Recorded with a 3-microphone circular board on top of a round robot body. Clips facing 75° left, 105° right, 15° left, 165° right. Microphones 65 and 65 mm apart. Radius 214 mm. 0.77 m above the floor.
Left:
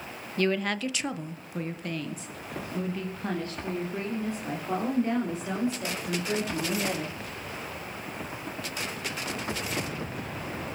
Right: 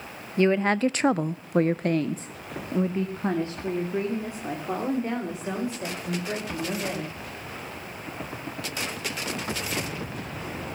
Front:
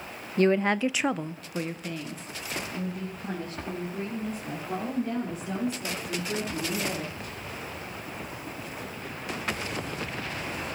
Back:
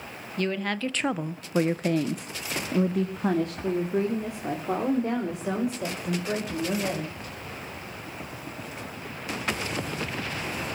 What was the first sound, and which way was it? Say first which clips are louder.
A woman speaking: right 6 dB, front 6 dB; 35° right.